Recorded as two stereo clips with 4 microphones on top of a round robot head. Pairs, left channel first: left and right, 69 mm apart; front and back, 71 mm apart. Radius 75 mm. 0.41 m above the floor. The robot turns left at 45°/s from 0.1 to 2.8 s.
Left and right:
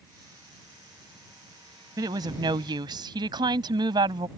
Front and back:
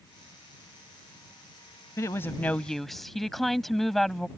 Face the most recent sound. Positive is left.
turn(degrees=-90)